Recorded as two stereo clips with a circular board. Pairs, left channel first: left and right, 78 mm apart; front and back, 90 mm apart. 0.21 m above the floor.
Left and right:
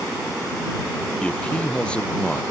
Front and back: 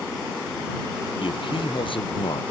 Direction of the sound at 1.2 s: 15° left.